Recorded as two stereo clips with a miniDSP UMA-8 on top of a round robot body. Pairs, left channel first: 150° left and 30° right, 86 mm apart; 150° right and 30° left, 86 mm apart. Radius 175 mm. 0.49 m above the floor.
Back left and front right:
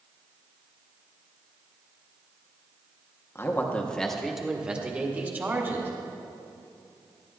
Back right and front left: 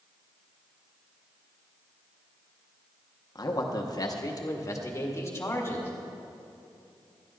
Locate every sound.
3.4 s a man speaking: 160° right, 1.3 m; by 5.9 s 90° right, 2.5 m